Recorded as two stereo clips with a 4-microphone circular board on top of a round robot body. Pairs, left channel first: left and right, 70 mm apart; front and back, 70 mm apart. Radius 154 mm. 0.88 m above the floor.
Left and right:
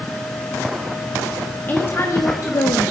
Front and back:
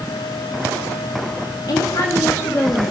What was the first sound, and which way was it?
A woman speaking, 25° left.